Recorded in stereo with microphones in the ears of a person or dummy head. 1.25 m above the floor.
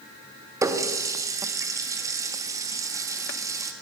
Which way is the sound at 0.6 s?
15° right (ahead or behind).